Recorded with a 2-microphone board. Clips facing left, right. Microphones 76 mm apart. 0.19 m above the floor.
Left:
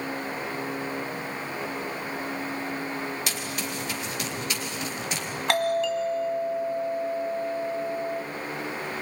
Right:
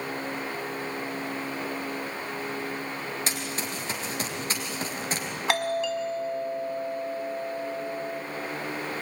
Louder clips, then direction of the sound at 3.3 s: Even; 35° right (ahead or behind).